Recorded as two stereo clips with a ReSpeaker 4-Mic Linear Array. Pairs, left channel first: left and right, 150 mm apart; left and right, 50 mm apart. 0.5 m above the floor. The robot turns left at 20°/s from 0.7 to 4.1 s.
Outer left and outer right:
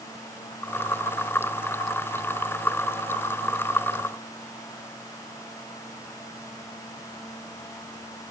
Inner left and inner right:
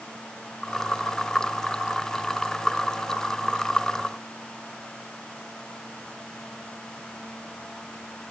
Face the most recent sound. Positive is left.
No sound to turn to.